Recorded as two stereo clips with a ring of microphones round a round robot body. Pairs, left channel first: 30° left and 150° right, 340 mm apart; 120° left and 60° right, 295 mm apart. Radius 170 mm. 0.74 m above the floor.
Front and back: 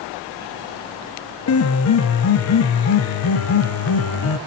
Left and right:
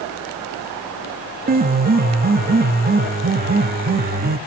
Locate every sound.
1.5 s a piano: 5° right, 0.9 m